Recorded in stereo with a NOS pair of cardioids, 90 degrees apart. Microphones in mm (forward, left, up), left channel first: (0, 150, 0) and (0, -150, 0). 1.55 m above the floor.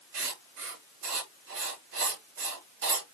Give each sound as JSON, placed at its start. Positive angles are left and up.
{"t": 0.1, "sound": "writing", "azimuth_deg": -55, "distance_m": 3.5}